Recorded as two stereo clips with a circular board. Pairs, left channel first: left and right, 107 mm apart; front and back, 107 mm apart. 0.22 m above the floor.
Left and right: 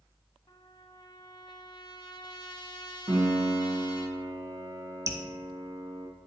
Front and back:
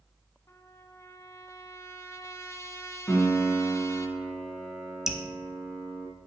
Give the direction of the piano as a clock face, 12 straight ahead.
2 o'clock.